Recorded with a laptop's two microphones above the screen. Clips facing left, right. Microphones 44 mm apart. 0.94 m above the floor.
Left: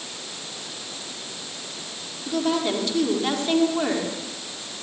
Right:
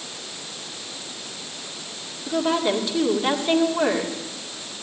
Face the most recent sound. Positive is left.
turn(degrees=-10)  # may be behind; listen again after turning